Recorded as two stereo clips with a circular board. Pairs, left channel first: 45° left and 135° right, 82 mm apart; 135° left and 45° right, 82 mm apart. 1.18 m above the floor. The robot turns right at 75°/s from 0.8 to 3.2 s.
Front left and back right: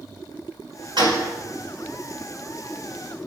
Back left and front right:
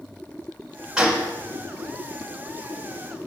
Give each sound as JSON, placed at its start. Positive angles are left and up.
{"t": 1.0, "sound": "a gunshot", "azimuth_deg": -130, "distance_m": 5.0}